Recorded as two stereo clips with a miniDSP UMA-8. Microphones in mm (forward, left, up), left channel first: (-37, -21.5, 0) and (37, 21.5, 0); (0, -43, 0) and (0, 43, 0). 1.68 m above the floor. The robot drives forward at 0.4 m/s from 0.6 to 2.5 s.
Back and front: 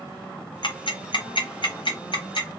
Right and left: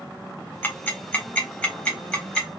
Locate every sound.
0.6 s ticking: 155° right, 0.7 m; by 2.5 s 170° right, 1.4 m